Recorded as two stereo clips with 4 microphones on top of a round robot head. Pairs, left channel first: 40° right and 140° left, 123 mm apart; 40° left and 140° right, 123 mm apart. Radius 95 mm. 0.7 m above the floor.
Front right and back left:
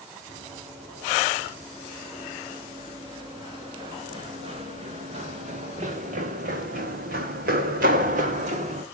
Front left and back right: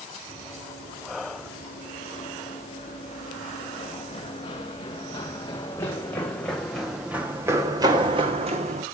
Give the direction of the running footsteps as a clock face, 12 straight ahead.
9 o'clock.